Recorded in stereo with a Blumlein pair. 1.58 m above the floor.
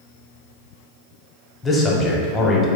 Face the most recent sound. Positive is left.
turn(degrees=15)